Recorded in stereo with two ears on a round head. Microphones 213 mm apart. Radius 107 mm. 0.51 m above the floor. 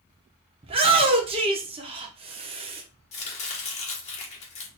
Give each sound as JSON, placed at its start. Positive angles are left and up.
{"t": 0.6, "sound": "a shout", "side_deg": -25, "distance_m": 0.8}
{"t": 3.1, "sound": "chopping", "side_deg": 30, "distance_m": 1.2}